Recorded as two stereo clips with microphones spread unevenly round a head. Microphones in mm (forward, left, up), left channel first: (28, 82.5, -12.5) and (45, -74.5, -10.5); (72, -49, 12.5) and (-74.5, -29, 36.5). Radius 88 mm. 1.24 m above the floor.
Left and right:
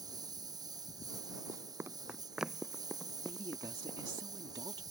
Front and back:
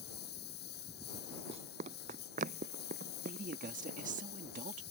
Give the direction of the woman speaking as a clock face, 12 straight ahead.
5 o'clock.